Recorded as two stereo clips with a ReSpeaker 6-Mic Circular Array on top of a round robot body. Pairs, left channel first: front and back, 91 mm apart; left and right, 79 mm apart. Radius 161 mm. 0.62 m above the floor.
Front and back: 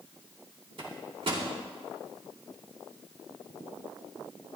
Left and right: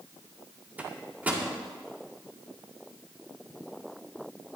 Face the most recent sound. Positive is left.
turn(degrees=-160)